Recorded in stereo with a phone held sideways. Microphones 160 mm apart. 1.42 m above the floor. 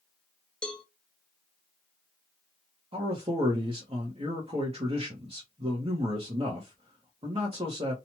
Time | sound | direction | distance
0.6 | a cowbell | 5° left (ahead or behind) | 0.5 m
2.9 | a man speaking | 40° right (ahead or behind) | 0.9 m